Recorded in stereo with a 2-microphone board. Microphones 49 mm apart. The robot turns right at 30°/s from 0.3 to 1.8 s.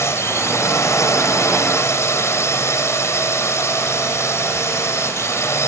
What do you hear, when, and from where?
0.0 s a drone: 65° left; by 5.7 s 110° left